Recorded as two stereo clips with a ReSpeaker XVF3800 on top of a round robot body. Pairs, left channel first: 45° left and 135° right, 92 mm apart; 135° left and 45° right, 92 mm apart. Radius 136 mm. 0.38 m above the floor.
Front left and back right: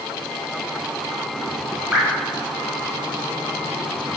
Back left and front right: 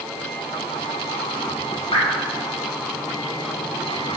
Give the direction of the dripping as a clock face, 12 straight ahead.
7 o'clock.